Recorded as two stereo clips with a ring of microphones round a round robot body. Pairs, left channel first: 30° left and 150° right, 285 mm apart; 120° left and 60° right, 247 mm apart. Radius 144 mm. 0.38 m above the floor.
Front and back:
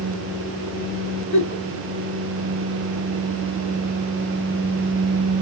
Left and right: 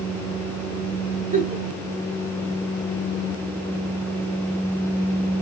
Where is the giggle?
5° right, 1.0 m.